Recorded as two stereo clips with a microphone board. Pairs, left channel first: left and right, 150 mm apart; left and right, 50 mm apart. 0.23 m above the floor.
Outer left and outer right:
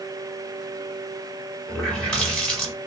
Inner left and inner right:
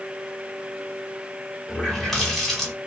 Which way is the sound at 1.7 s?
5° left (ahead or behind).